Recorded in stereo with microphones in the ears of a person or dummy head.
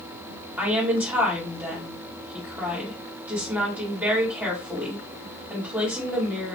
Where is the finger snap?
No finger snap in this recording.